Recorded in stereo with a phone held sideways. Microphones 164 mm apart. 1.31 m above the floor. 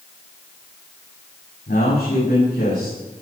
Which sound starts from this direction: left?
A man speaking, at 1.7 s.